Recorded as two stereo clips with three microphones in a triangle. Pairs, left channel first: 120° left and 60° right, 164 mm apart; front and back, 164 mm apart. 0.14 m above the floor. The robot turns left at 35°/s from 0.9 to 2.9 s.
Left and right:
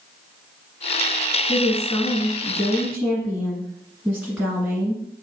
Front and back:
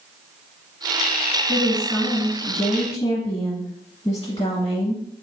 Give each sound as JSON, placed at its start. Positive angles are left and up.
{"t": 1.5, "sound": "a woman speaking", "azimuth_deg": 85, "distance_m": 1.6}